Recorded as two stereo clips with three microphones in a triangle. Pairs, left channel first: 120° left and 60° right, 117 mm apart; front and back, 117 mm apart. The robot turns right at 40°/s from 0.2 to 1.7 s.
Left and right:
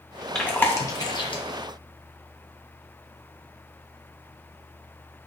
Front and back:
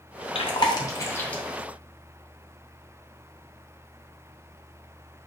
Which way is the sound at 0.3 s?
35° left.